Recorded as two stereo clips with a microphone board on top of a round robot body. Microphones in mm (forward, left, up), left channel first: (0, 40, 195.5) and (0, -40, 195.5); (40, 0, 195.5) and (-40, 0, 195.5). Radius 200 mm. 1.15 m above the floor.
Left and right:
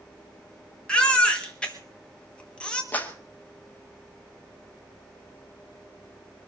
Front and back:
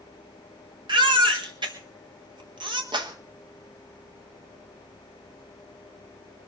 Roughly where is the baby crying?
Behind.